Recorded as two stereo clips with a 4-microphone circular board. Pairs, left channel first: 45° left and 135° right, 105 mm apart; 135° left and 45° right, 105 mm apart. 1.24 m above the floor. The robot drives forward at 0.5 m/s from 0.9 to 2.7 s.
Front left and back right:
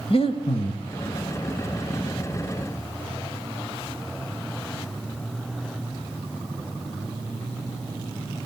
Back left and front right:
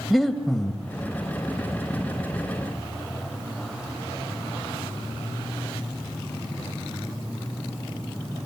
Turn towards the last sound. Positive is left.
turn(degrees=70)